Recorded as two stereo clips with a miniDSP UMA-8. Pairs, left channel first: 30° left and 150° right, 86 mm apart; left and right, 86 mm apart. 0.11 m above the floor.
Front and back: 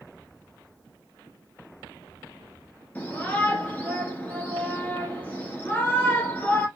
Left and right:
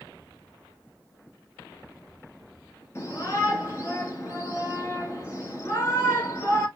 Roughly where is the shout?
Left.